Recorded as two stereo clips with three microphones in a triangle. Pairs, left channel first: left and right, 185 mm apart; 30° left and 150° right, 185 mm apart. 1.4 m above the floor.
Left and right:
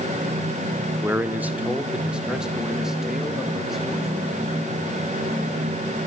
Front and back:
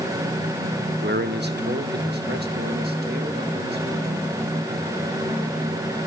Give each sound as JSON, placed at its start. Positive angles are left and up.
{"t": 1.0, "sound": "a man speaking", "azimuth_deg": -170, "distance_m": 0.8}